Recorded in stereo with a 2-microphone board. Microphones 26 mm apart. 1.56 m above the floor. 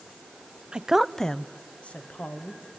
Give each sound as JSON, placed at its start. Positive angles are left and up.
{"t": 0.7, "sound": "a woman speaking", "side_deg": -35, "distance_m": 0.6}